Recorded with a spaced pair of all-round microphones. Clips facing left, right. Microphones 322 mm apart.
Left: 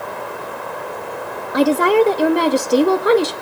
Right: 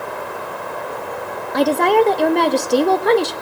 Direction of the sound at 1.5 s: 10° left (ahead or behind).